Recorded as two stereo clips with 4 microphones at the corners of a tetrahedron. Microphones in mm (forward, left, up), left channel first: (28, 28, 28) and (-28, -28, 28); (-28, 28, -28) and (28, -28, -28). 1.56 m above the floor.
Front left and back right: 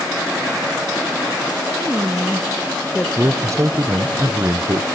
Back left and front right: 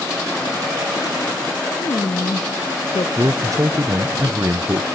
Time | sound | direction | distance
1.8 | a woman speaking | 170° left | 1.0 m
3.2 | a man speaking | 85° right | 0.8 m